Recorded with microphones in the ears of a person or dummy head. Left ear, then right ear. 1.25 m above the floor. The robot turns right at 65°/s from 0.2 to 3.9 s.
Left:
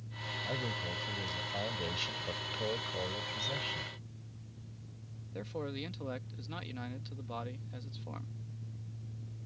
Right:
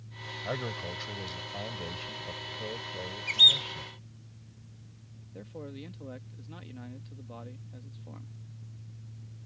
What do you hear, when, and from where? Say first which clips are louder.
0.4 s a man speaking: right 3 dB; 55° right; by 3.9 s 170° left
3.3 s a bird: right 17 dB; 70° right (ahead or behind); by 3.6 s 80° right
5.3 s a man speaking: left 4 dB; 45° left (ahead or behind)